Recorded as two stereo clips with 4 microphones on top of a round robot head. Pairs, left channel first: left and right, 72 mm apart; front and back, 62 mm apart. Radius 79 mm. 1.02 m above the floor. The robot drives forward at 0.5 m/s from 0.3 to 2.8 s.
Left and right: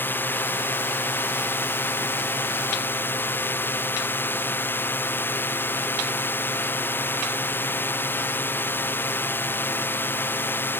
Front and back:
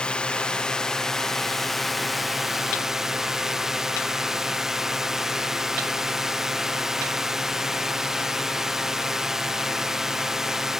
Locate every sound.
0.0 s a drone: 60° left; by 10.8 s 105° left